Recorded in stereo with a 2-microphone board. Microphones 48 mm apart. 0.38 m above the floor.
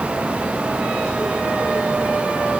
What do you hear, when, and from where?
Only background noise.